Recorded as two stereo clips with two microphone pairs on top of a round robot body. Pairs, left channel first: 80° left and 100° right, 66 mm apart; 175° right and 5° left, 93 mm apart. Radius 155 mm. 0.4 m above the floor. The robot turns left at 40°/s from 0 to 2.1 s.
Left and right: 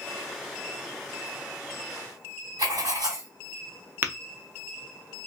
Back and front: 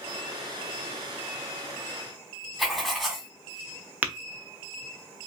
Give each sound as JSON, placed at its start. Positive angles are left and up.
{"t": 2.6, "sound": "writing", "azimuth_deg": -90, "distance_m": 2.5}
{"t": 4.0, "sound": "tapping", "azimuth_deg": -55, "distance_m": 0.7}